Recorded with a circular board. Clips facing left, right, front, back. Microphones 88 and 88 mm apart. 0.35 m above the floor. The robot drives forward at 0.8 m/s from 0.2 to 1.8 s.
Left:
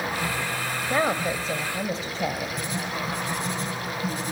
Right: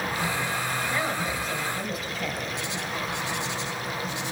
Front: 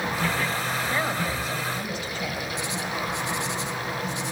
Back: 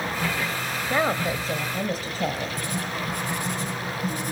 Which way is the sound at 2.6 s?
135° left.